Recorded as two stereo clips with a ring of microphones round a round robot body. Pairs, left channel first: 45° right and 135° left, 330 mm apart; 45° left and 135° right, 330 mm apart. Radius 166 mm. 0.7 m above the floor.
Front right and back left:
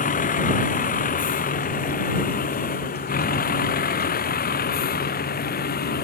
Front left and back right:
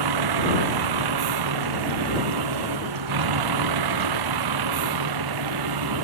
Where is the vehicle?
115° right; by 6.0 s 110° right.